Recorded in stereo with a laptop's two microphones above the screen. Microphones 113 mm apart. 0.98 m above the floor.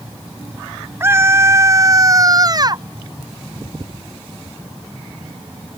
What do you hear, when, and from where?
1.0 s a scream: 25° right (ahead or behind); by 2.8 s 40° right (ahead or behind)